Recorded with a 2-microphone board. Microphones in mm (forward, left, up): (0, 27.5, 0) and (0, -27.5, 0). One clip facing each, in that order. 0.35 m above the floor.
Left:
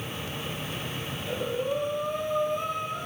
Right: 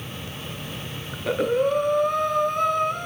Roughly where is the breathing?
Right.